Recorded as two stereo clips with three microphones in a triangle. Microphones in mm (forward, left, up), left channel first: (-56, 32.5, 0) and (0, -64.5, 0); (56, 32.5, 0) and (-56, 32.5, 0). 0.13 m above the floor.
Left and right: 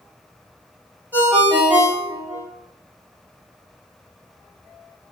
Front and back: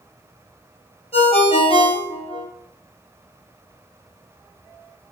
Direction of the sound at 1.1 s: 10° left.